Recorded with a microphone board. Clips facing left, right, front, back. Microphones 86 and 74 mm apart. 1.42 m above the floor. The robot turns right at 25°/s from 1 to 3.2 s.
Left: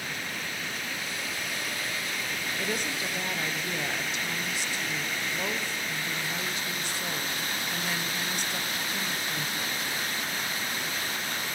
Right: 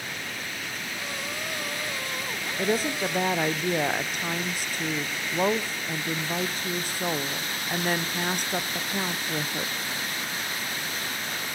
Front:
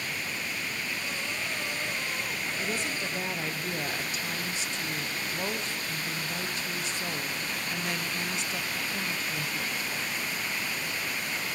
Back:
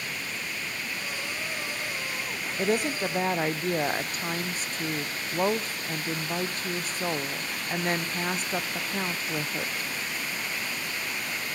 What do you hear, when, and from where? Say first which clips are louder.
2.6 s a woman speaking: right 9 dB, back 10 dB; 150° right, 0.6 m; by 9.9 s 135° right, 0.6 m